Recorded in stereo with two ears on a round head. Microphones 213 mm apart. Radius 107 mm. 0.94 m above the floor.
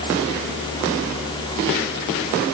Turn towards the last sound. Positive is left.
No sound to turn to.